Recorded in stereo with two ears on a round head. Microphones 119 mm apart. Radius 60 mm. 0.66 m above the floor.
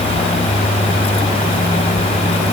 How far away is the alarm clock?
No alarm clock in this recording.